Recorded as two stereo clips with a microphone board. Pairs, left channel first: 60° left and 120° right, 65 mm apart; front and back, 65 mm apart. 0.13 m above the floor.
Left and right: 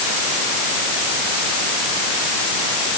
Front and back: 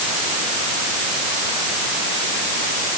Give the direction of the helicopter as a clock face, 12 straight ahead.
I don't hear a helicopter.